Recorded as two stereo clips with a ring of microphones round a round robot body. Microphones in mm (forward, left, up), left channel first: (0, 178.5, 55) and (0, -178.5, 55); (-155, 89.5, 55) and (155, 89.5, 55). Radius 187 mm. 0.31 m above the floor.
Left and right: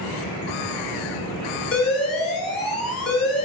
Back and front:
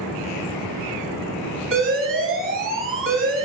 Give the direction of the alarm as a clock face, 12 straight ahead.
11 o'clock.